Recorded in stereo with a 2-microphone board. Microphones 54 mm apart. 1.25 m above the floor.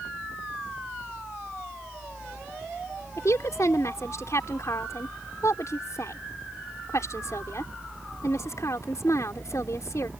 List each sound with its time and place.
3.2 s a woman speaking: 65° left (ahead or behind)